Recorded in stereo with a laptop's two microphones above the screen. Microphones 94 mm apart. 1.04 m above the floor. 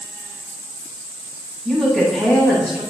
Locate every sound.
1.6 s a woman speaking: 5° right (ahead or behind), 8.5 m